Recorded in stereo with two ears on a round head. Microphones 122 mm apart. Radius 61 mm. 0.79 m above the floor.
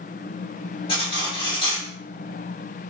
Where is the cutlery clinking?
40° left (ahead or behind), 1.2 m.